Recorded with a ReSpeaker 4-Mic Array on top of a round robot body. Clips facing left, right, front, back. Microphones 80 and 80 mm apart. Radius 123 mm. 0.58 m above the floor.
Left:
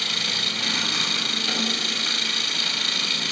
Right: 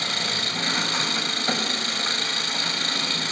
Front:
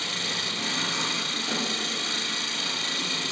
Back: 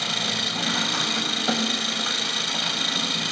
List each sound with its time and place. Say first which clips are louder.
0.0 s an engine running: right 2 dB, back 4 dB; 150° right, 3 m